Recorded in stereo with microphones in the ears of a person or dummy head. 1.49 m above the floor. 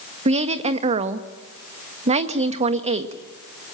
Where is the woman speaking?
35° right (ahead or behind), 1.5 m.